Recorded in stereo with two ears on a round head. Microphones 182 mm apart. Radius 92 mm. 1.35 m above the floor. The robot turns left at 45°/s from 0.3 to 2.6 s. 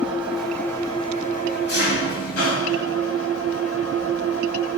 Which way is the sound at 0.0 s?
175° right.